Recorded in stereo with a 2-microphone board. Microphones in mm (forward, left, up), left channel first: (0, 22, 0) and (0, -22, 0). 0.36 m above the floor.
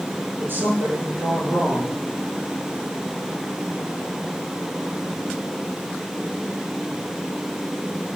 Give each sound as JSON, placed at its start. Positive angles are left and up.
{"t": 0.4, "sound": "a woman speaking", "side_deg": -45, "distance_m": 7.5}